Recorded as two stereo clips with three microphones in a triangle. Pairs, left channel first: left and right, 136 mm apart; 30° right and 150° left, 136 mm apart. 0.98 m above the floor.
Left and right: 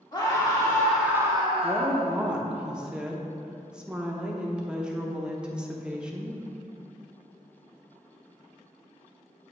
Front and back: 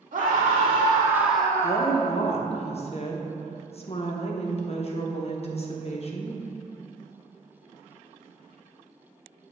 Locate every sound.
0.1 s a scream: 140° left, 1.4 m; by 2.1 s 75° right, 1.3 m
1.6 s a woman speaking: 10° right, 0.9 m